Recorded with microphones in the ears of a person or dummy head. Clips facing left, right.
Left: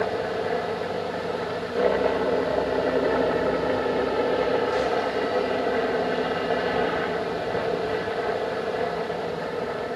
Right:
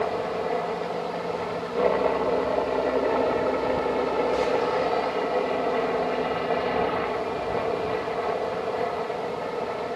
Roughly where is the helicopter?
Centre.